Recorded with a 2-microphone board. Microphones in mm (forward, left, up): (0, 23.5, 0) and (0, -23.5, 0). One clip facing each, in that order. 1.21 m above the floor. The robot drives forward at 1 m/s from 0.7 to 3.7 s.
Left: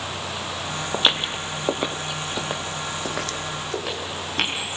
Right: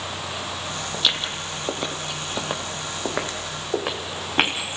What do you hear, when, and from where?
0.9 s footsteps: 30° left (ahead or behind), 1.6 m; by 4.5 s 30° right (ahead or behind), 3 m